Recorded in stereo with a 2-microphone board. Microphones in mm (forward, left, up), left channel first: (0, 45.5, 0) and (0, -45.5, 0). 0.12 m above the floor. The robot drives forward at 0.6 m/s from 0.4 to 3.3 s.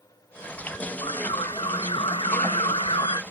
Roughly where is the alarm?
Left.